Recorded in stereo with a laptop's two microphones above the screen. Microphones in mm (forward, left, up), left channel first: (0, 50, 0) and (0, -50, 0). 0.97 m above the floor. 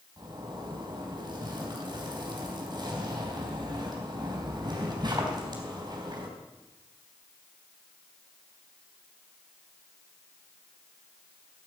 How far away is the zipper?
About 4 m.